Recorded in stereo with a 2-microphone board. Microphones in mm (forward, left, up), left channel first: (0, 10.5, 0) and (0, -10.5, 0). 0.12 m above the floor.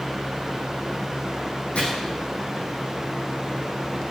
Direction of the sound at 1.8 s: 70° left (ahead or behind).